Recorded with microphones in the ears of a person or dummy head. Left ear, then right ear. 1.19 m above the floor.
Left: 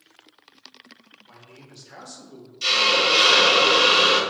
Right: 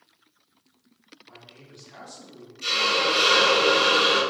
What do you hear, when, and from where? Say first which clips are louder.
1.2 s a man speaking: even; 65° left (ahead or behind), 1.8 m; by 2.5 s 40° left (ahead or behind), 1.2 m
2.6 s a hiss: left 4 dB; 35° left (ahead or behind), 0.8 m